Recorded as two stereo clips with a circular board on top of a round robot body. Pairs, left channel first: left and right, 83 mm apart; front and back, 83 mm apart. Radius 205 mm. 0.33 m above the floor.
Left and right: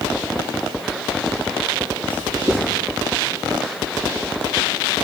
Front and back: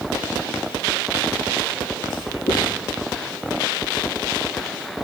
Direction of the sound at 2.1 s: 25° right.